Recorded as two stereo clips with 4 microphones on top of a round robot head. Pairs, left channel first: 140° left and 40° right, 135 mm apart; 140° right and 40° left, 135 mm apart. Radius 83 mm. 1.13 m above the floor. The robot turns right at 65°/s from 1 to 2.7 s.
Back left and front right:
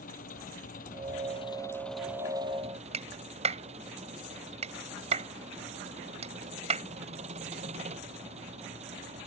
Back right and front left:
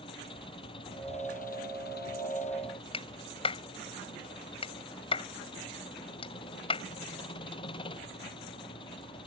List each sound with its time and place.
0.0 s an engine running: 165° left; by 9.3 s 85° right
2.9 s a clap: 85° right